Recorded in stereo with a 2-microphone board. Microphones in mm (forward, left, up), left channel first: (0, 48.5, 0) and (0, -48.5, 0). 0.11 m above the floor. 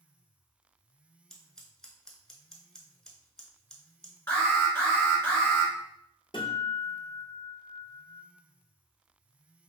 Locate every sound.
1.3 s scissors: 5° left (ahead or behind), 0.7 m
4.3 s an alarm: 25° left (ahead or behind), 1.3 m
6.3 s a guitar: 55° left (ahead or behind), 0.8 m